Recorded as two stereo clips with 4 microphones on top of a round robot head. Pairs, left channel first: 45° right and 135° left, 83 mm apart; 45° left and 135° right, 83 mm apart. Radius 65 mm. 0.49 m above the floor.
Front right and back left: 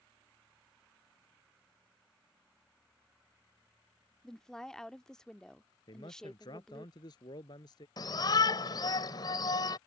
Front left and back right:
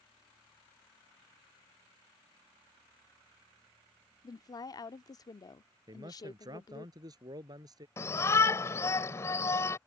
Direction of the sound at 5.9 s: 90° right.